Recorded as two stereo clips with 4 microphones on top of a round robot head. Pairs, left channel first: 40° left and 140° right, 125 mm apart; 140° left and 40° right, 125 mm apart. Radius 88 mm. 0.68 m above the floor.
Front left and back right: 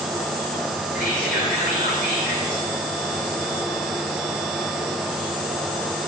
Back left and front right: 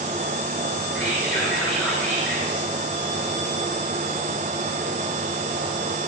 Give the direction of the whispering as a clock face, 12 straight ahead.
11 o'clock.